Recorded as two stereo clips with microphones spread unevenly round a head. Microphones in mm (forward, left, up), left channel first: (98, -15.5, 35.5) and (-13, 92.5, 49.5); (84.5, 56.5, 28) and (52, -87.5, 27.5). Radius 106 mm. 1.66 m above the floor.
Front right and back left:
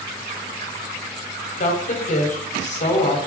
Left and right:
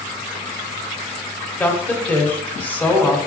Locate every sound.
1.6 s a woman speaking: straight ahead, 1.4 m